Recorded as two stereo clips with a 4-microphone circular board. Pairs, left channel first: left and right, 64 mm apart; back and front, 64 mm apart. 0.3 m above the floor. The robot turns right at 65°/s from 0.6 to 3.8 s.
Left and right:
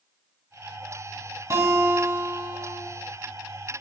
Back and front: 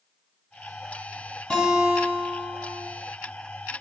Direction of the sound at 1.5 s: 100° right.